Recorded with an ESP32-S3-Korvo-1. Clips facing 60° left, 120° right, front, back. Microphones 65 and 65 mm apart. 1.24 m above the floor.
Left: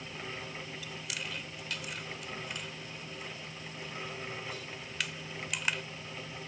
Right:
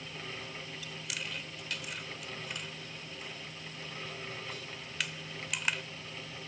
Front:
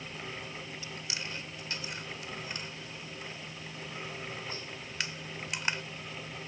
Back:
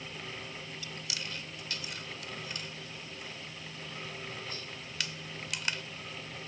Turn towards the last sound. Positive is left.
turn(degrees=-30)